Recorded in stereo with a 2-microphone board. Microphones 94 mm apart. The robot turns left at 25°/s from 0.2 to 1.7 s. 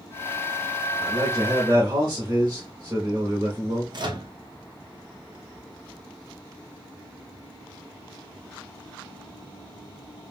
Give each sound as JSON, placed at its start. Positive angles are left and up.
{"t": 1.0, "sound": "a man speaking", "side_deg": -45, "distance_m": 1.0}
{"t": 3.9, "sound": "a microwave", "side_deg": -50, "distance_m": 0.7}